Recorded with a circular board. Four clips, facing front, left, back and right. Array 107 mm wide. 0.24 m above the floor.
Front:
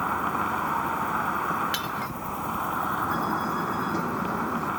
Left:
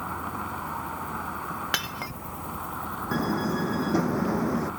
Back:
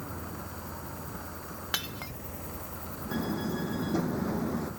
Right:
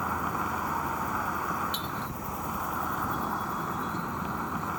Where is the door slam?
90° left.